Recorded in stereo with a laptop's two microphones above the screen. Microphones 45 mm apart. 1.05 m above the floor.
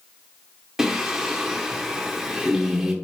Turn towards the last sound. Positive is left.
turn(degrees=-10)  # may be behind; listen again after turning